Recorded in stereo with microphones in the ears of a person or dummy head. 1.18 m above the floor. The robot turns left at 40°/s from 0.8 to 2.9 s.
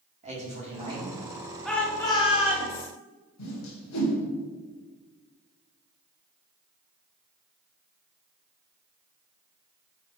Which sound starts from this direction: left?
A whoosh, at 3.4 s.